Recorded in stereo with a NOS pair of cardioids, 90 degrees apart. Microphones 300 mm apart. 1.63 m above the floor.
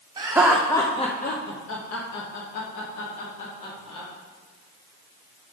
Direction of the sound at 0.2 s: 15° right.